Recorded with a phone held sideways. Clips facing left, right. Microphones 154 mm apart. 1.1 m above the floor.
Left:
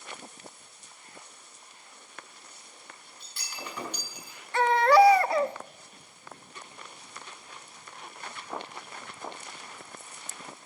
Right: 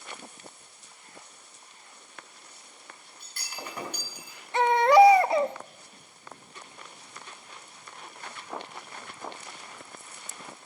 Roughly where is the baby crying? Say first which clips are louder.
Right 2 dB; centre.